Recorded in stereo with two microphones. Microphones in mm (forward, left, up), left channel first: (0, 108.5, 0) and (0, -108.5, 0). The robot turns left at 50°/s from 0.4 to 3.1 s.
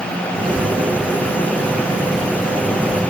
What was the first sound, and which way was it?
Only background noise.